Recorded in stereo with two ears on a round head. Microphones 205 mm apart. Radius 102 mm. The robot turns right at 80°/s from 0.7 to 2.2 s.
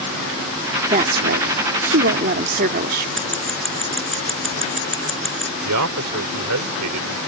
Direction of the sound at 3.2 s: Centre (ahead or behind).